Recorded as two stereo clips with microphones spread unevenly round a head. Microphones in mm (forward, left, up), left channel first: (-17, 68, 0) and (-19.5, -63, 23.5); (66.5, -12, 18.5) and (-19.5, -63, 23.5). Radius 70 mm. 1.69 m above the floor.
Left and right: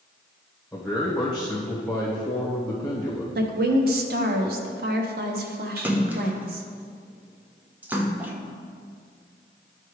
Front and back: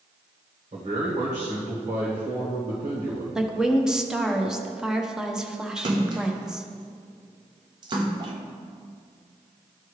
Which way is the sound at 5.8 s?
150° right.